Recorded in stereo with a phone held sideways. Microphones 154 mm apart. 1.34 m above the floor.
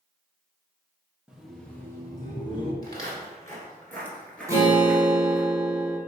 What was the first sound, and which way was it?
Laughter, 5° right (ahead or behind).